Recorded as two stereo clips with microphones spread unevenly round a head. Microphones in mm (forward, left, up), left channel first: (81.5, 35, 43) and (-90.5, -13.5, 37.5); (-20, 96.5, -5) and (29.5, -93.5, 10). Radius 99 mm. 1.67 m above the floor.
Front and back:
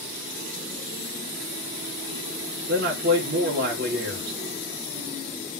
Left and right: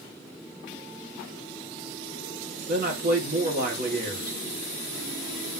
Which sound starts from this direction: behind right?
A man speaking, at 2.7 s.